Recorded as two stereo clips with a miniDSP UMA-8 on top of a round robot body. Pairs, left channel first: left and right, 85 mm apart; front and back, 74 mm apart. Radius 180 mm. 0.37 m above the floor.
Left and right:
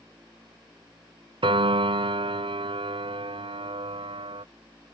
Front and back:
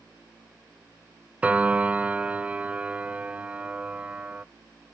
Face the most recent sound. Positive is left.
turn(degrees=-105)